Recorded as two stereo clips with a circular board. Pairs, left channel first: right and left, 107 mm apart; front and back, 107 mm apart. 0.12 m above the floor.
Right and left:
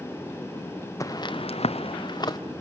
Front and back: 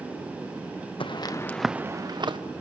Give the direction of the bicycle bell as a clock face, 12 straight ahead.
No bicycle bell in this recording.